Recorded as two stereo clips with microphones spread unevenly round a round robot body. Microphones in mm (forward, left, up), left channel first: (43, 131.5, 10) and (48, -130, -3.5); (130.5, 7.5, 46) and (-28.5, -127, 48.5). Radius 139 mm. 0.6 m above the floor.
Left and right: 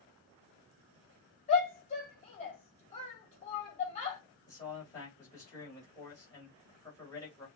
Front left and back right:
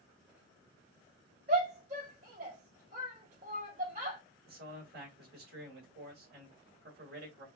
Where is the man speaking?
170° left, 2 m.